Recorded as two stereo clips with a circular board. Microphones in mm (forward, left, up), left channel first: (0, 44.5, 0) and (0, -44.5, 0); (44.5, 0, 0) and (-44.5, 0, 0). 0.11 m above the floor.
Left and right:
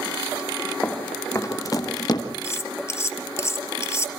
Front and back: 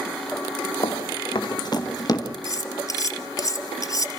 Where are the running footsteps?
20° left, 2.5 m; by 2.2 s 50° left, 3.5 m.